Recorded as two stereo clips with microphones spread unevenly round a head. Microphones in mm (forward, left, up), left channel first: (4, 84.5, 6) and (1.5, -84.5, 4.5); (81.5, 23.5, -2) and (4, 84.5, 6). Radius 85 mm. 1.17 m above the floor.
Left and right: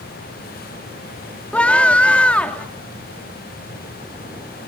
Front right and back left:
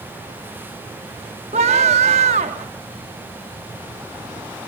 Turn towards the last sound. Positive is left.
turn(degrees=170)